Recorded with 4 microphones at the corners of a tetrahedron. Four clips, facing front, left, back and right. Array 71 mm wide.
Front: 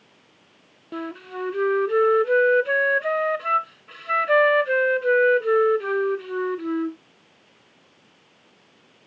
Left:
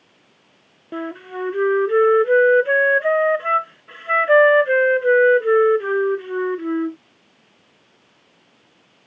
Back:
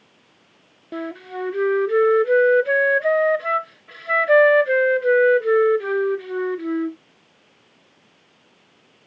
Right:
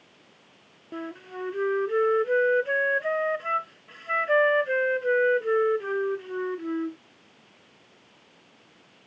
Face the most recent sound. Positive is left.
turn(degrees=90)